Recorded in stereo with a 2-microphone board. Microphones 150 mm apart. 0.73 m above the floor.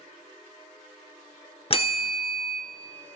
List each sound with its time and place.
1.7 s a bell: 40° left (ahead or behind), 0.9 m